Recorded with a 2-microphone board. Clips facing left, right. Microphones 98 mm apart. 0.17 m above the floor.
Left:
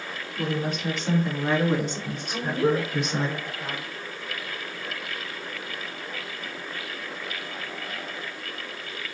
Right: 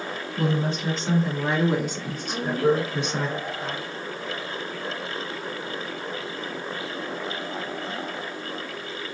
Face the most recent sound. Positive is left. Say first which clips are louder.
# right 2 dB
turn(degrees=-35)  # may be behind; listen again after turning